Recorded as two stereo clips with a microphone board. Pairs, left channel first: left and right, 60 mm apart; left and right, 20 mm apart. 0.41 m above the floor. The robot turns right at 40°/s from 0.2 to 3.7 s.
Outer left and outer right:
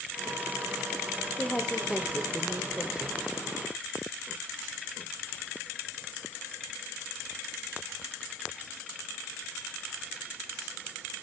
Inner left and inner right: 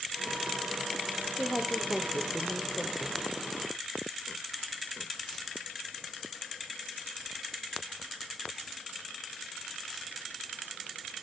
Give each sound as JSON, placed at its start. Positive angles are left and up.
{"t": 1.4, "sound": "a woman speaking", "side_deg": 15, "distance_m": 0.8}